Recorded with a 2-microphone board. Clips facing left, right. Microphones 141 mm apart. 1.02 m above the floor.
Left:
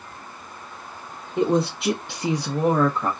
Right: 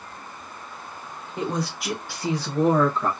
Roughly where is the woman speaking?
Left.